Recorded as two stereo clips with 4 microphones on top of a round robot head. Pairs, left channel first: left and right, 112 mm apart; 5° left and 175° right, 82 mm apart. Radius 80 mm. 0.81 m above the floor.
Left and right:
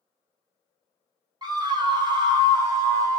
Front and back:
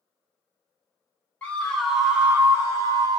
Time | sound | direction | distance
1.4 | a scream | 60° right | 0.9 m